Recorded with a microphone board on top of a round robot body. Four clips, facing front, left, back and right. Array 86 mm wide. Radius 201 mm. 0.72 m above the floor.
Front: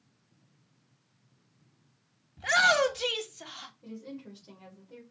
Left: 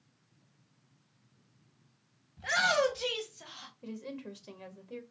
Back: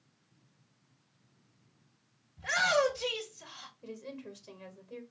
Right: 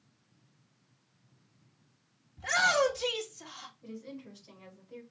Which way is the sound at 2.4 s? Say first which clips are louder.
Right 1 dB, front 4 dB; 10° left.